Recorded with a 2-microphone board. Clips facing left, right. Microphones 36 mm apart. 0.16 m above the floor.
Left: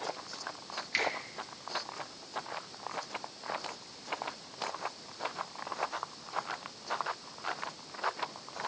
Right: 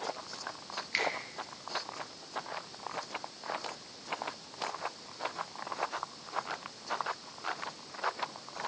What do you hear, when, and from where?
0.9 s a finger snap: centre (ahead or behind), 3.5 m